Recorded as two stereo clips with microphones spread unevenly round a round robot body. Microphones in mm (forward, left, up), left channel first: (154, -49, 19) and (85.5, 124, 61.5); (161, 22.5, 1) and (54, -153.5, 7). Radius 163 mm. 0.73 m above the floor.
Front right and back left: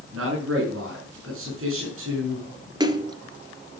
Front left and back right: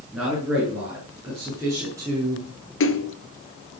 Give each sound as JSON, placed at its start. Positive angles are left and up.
{"t": 0.1, "sound": "a man speaking", "azimuth_deg": 150, "distance_m": 9.0}
{"t": 2.8, "sound": "a splash", "azimuth_deg": 50, "distance_m": 1.9}